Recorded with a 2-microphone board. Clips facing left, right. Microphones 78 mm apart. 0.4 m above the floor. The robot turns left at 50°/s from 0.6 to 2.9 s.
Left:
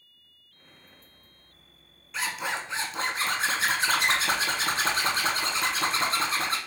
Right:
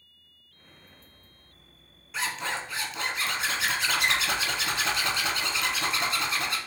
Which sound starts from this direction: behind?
A zipper, at 2.1 s.